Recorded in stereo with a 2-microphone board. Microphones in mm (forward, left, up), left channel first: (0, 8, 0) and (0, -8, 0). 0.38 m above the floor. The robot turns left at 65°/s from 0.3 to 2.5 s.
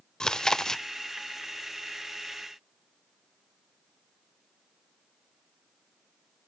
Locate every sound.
0.2 s chewing: 80° left, 0.5 m; by 0.8 s 45° left, 0.5 m